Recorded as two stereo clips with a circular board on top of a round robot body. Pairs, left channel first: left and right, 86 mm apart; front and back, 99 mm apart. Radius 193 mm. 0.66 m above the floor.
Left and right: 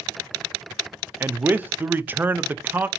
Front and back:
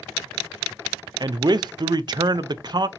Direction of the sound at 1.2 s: 150° right.